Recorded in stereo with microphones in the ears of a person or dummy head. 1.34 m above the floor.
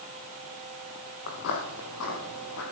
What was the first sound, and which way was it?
Footsteps, 55° left (ahead or behind).